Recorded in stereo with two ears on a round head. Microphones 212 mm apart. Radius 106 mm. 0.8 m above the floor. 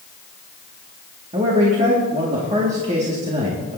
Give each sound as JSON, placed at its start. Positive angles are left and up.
{"t": 1.3, "sound": "a man speaking", "side_deg": -30, "distance_m": 1.9}